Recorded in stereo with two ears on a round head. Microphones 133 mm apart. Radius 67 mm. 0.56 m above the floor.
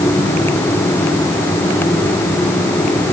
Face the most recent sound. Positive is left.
No sound to turn to.